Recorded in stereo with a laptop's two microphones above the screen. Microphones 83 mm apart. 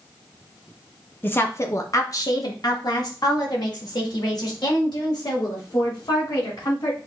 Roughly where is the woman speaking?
Left.